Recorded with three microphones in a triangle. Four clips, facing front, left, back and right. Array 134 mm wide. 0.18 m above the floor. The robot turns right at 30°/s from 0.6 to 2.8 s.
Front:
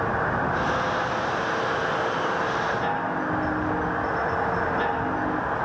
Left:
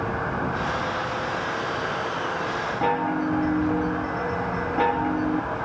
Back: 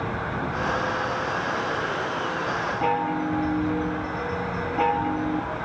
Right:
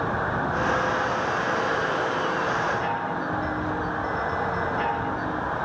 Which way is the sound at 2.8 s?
105° left.